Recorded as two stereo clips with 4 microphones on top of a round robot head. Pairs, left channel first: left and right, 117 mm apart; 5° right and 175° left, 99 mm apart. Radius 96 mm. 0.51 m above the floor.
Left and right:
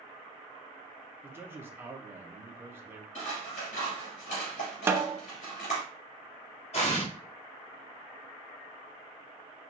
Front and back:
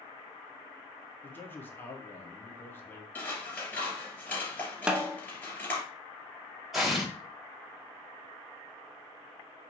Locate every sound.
1.2 s a man speaking: 45° right, 1.0 m
3.1 s scissors: 70° left, 3 m
4.9 s a snare drum: 120° right, 0.6 m
6.7 s an explosion: 85° left, 2.5 m